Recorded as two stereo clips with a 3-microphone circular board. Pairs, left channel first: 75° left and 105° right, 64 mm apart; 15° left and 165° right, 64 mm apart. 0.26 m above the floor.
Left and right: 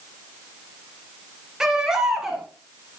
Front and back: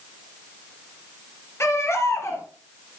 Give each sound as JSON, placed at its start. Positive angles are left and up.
{"t": 1.6, "sound": "a baby crying", "azimuth_deg": -25, "distance_m": 3.0}